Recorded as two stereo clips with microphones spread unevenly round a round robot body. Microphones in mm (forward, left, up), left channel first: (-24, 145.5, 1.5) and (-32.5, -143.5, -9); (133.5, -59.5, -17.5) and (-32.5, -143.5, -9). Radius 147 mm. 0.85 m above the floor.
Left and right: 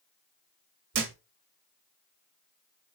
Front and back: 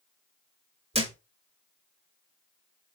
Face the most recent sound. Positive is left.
turn(degrees=-100)